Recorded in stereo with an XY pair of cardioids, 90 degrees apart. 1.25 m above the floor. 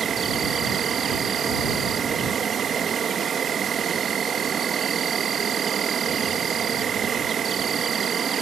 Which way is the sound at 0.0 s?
55° right.